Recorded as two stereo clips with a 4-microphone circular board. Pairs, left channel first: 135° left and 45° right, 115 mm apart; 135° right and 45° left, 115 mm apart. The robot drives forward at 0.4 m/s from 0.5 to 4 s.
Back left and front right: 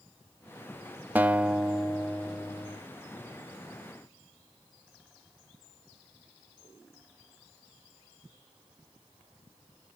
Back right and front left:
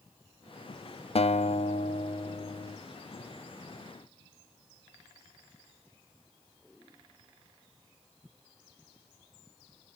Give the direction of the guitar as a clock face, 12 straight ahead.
4 o'clock.